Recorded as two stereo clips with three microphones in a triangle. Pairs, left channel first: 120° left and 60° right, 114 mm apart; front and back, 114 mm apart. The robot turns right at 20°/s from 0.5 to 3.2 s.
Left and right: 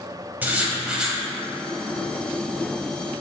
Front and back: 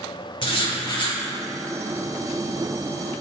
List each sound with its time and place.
0.4 s writing: 10° left, 0.7 m; by 1.2 s 25° left, 0.7 m